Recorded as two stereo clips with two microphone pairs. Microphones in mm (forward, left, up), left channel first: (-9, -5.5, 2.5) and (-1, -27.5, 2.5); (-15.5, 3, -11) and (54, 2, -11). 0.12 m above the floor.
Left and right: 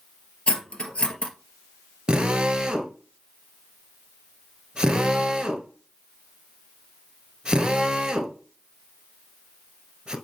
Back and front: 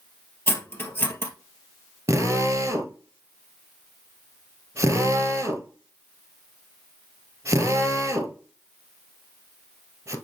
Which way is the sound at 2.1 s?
25° right.